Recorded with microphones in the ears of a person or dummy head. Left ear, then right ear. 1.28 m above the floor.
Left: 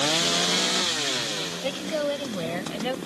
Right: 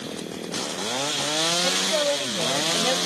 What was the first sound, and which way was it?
A woman speaking, 20° right (ahead or behind).